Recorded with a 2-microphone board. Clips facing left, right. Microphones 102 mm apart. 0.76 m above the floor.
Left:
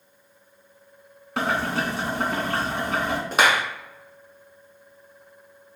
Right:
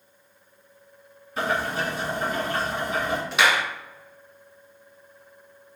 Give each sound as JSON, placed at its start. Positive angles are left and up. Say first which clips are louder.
{"t": 1.4, "sound": "boiling", "louder": "left 1 dB", "side_deg": 80, "distance_m": 2.5}
{"t": 3.3, "sound": "a clap", "louder": "left 2 dB", "side_deg": 45, "distance_m": 1.1}